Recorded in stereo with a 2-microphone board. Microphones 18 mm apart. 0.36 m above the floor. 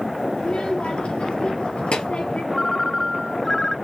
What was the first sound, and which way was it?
A child speaking, 75° left (ahead or behind).